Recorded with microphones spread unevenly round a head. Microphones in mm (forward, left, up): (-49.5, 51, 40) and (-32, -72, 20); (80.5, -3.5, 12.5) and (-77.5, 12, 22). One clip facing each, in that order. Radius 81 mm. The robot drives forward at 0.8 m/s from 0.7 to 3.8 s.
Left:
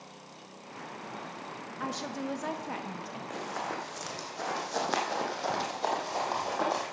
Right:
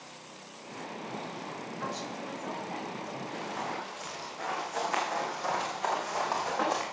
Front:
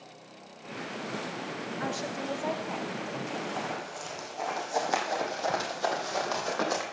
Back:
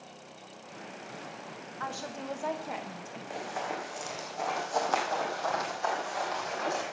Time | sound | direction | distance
1.8 | a woman speaking | 55° left | 1.3 m
3.3 | running footsteps | 95° left | 4 m